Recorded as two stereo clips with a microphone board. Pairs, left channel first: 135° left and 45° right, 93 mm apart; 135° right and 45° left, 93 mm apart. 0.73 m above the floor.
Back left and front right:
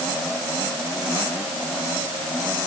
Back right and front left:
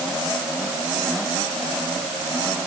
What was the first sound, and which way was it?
Only background noise.